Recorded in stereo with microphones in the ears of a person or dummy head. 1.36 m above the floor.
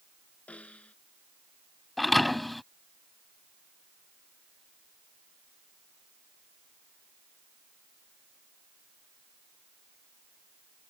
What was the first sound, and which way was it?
A snare drum, 10° left (ahead or behind).